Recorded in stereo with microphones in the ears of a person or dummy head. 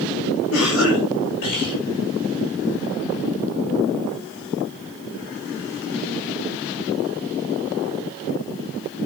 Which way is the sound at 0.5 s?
80° left.